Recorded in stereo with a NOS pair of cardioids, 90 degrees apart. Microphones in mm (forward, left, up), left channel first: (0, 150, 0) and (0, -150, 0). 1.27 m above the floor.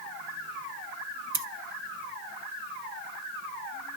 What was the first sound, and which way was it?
Scissors, 30° right.